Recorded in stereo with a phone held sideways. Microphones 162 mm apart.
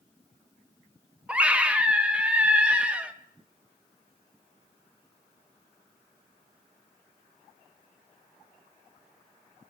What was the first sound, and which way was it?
A scream, 5° right (ahead or behind).